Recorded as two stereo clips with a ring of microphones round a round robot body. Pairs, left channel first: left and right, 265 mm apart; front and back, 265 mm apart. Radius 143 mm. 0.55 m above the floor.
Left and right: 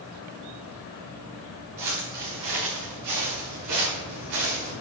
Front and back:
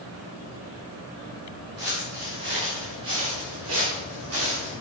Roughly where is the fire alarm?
I don't hear a fire alarm.